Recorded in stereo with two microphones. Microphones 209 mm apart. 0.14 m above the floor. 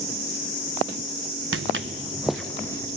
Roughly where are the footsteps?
Right.